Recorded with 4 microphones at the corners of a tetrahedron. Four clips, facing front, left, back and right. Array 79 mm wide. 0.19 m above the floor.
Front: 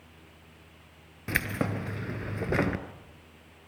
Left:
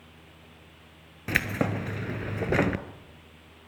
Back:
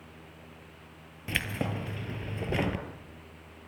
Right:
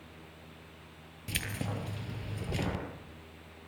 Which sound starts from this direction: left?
Keys jangling, at 1.3 s.